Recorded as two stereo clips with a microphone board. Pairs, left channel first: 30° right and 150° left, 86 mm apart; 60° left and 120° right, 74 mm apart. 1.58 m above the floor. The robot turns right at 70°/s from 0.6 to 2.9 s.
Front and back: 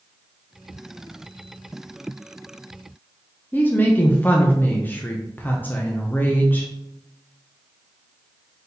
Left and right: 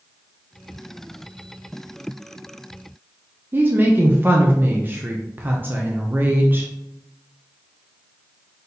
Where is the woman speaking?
80° right, 0.5 m.